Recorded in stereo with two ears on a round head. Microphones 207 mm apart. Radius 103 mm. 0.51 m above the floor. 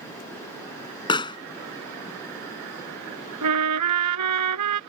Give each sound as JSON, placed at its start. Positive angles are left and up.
{"t": 1.1, "sound": "a pop", "side_deg": 20}
{"t": 3.4, "sound": "a trumpet", "side_deg": -85}